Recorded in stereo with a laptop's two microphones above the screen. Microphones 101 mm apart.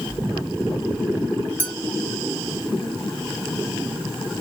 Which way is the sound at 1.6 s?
15° left (ahead or behind).